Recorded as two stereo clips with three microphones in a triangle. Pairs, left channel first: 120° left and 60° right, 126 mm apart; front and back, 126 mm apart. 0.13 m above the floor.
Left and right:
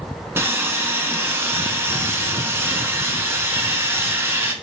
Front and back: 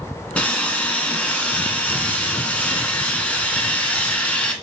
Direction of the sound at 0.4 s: 55° right.